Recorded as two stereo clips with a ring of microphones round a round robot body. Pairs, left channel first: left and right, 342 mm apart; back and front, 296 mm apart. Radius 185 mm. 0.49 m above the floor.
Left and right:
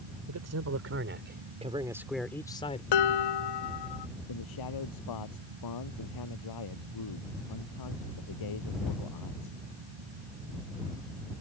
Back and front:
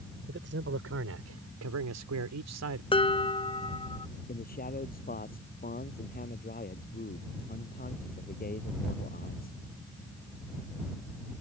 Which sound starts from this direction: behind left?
A man speaking, at 4.3 s.